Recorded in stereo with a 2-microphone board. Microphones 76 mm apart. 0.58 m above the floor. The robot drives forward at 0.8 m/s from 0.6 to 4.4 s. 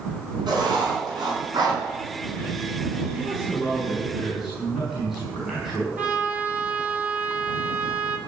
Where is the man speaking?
10° right (ahead or behind), 4.5 m; by 5.9 s 5° right (ahead or behind), 5.5 m.